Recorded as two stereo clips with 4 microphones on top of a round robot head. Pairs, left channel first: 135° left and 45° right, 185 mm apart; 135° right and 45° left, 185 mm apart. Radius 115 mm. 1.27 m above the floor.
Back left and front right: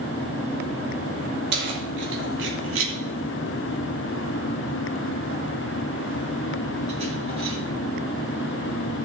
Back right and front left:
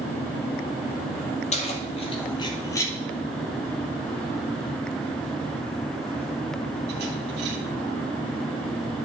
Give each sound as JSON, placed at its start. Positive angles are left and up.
{"t": 1.5, "sound": "keys jangling", "azimuth_deg": -80, "distance_m": 2.0}